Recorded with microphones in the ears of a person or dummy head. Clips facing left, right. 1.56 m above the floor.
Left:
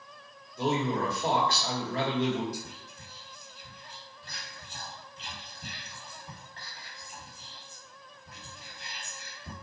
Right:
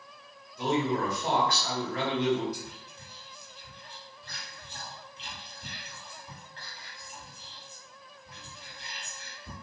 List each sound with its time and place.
0.6 s a man speaking: 30° left (ahead or behind), 1.1 m
2.5 s whispering: 45° left (ahead or behind), 1.4 m